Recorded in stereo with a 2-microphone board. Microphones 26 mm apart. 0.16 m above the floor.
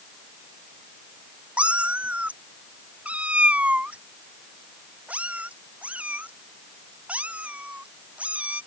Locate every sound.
1.6 s a cat meowing: 55° right (ahead or behind); by 8.6 s 60° right (ahead or behind)